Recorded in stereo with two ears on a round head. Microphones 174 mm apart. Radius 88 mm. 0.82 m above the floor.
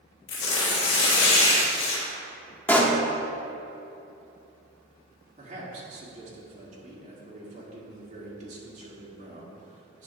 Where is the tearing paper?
65° left (ahead or behind), 2.5 m.